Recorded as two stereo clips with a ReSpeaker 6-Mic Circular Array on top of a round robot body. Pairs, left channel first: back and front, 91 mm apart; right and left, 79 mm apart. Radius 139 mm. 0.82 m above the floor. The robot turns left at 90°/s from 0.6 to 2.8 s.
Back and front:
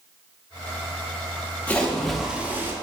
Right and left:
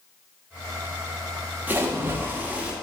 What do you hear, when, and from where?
1.7 s a splash: 130° left, 0.9 m; by 2.7 s 35° left, 0.9 m